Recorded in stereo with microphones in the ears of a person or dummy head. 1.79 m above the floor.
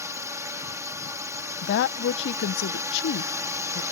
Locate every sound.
0.0 s a drone: 10° right (ahead or behind)
1.6 s a woman speaking: 75° left (ahead or behind)